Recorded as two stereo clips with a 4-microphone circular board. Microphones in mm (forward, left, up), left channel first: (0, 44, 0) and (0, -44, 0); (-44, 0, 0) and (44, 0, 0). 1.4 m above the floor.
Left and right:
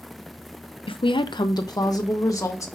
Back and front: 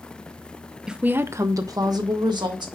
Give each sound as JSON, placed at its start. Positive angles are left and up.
{"t": 0.9, "sound": "a woman speaking", "azimuth_deg": 85, "distance_m": 0.6}